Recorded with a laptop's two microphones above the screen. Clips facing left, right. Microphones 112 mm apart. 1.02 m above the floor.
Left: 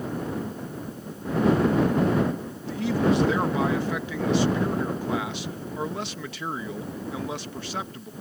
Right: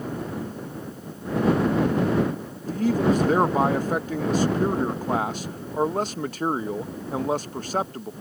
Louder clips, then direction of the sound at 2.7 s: Right 2 dB; 45° right (ahead or behind).